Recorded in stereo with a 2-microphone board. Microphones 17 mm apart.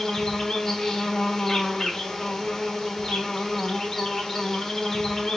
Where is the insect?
35° left (ahead or behind), 1.1 m.